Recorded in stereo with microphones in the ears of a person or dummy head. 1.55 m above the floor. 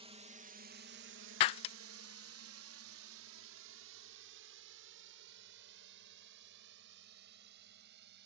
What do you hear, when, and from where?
0.0 s a drone: 30° right (ahead or behind); by 8.3 s 60° right (ahead or behind)
1.4 s breaking glass: 35° left (ahead or behind)